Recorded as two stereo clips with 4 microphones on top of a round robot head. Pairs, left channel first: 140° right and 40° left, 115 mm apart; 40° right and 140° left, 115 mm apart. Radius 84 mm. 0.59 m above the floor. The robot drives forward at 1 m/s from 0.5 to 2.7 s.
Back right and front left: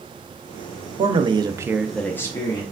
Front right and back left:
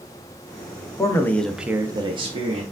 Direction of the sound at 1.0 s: 15° left.